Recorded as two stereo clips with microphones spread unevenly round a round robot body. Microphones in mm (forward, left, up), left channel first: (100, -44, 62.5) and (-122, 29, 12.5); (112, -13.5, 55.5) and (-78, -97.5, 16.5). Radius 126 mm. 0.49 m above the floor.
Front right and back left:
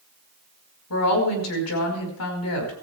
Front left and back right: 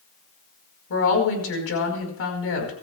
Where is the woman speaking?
10° left, 5 m.